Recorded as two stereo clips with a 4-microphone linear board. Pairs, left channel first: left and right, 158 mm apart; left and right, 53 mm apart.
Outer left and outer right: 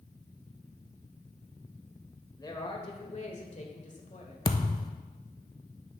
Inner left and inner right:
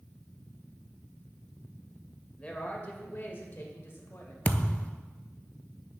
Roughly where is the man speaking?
Left.